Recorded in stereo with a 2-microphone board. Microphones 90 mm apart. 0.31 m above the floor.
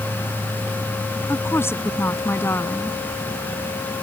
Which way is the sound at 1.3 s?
30° left (ahead or behind).